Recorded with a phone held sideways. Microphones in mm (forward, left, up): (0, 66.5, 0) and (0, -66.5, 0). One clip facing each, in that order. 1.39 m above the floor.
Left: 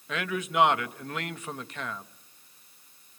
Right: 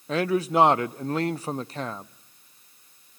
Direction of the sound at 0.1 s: 35° right (ahead or behind).